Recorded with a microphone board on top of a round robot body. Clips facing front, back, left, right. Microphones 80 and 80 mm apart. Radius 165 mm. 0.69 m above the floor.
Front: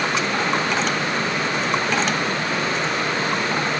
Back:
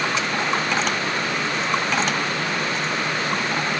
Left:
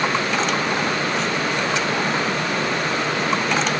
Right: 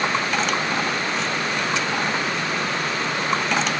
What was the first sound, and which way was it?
Only background noise.